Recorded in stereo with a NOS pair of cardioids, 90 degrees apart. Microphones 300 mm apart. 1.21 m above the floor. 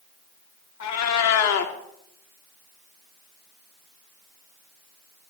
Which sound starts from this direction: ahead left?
A cat meowing, at 0.8 s.